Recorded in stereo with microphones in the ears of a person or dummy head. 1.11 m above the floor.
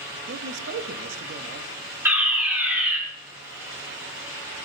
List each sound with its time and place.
0.3 s a man speaking: 55° right (ahead or behind), 1.3 m
2.0 s a fire alarm: 10° right (ahead or behind), 6 m